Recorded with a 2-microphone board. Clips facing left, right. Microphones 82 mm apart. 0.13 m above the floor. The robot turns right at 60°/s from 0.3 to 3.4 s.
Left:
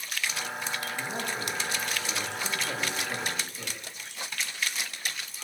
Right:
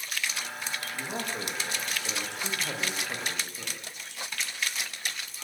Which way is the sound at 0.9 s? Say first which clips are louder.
Left 1 dB; 170° right.